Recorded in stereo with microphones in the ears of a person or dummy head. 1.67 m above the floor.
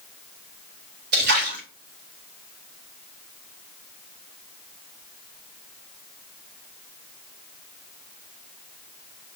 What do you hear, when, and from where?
1.1 s a splash: 60° right (ahead or behind), 1.7 m